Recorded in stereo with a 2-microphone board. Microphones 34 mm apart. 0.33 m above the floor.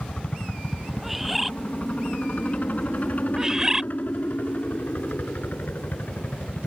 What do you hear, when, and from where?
0.0 s a helicopter: 30° left (ahead or behind); by 6.7 s 55° left (ahead or behind)
1.0 s a bird: centre (ahead or behind)
3.4 s a bird: 20° right (ahead or behind)